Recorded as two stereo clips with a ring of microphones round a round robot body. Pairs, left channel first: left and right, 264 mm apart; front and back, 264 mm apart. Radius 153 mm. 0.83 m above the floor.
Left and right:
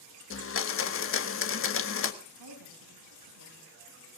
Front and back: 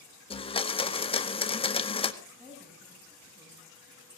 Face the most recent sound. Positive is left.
turn(degrees=-110)